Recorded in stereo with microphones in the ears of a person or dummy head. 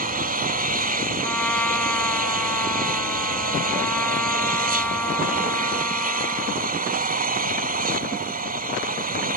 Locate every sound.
0.0 s an engine running: 40° right (ahead or behind)
1.2 s a trumpet: 5° left (ahead or behind)